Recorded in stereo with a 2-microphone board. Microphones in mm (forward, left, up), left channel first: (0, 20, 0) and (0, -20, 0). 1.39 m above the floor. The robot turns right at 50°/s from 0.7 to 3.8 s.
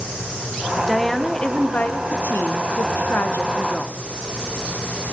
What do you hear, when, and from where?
0.9 s a woman speaking: 5° right, 0.8 m; by 3.9 s 145° left, 0.8 m